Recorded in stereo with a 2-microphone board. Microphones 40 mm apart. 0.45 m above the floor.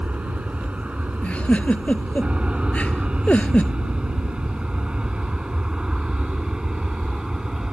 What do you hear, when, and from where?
0.0 s an aircraft: 30° right (ahead or behind); by 7.7 s 15° right (ahead or behind)
1.2 s a giggle: 35° left (ahead or behind)